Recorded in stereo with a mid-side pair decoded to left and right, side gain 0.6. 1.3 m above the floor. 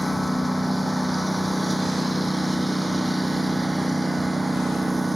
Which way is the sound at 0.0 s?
5° left.